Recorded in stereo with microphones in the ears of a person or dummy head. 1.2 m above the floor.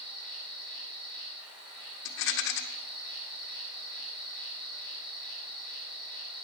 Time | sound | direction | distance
0.0 | an insect | 25° right (ahead or behind) | 4.5 m
2.0 | a rattle | 60° left (ahead or behind) | 1.2 m